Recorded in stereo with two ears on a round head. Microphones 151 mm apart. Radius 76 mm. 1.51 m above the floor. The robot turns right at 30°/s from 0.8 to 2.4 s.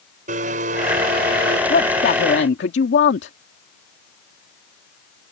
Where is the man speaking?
55° left (ahead or behind); by 3.3 s 75° left (ahead or behind).